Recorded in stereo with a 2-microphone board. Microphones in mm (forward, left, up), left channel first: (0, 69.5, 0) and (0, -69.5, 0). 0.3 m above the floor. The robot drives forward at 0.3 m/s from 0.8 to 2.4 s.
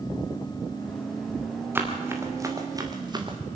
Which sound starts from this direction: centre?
Running footsteps, at 1.8 s.